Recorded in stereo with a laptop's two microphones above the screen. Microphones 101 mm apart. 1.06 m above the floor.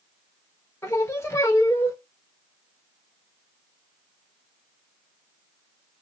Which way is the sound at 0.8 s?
25° left (ahead or behind).